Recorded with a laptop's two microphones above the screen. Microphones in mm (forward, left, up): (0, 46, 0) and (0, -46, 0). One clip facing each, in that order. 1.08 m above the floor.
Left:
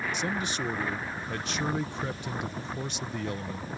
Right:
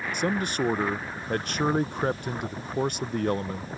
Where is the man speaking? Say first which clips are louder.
Right 5 dB; 50° right (ahead or behind).